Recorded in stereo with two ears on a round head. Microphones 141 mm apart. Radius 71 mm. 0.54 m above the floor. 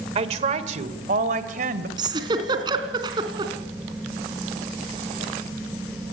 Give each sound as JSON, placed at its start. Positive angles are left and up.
{"t": 0.1, "sound": "a woman speaking", "side_deg": -40, "distance_m": 1.9}
{"t": 2.0, "sound": "a giggle", "side_deg": -30, "distance_m": 3.0}